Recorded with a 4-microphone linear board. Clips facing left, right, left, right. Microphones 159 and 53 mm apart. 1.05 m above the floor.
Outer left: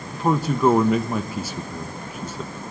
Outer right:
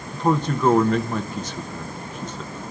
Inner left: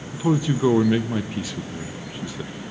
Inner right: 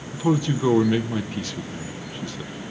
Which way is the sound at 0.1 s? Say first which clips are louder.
Even, even; 10° left (ahead or behind).